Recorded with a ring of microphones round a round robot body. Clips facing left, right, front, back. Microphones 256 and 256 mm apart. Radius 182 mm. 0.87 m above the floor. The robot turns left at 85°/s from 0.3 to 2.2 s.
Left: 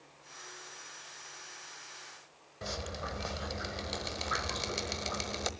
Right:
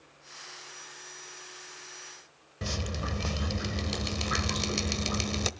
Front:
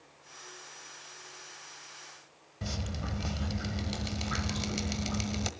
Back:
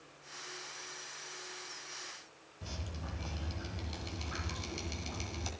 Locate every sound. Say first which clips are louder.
2.6 s dripping: right 5 dB, front 8 dB; 40° right, 1.2 m